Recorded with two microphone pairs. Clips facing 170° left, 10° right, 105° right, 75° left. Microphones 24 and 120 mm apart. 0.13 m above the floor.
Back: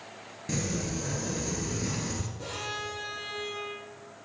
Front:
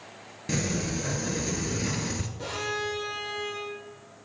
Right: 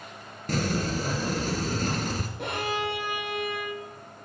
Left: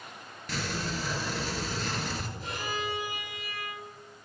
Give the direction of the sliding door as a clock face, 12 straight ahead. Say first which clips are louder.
Front 3 dB, right 7 dB; 2 o'clock.